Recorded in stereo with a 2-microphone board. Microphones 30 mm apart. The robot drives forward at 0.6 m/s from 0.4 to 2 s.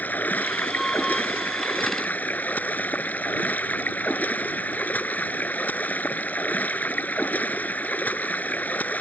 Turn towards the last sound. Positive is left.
turn(degrees=70)  # may be behind; listen again after turning